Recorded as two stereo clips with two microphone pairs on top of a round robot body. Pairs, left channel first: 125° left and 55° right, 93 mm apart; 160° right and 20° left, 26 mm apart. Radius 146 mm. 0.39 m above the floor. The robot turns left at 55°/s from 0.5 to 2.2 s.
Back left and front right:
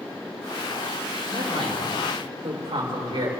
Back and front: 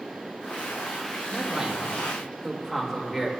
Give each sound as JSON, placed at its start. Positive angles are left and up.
{"t": 1.2, "sound": "a man speaking", "azimuth_deg": -20, "distance_m": 2.5}